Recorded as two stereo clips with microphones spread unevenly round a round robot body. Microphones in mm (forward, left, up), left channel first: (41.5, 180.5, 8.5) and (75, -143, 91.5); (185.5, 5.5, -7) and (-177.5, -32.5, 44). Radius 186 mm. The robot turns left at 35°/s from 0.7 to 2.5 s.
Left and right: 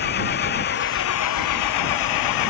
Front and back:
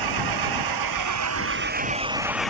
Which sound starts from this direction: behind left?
An engine running, at 0.0 s.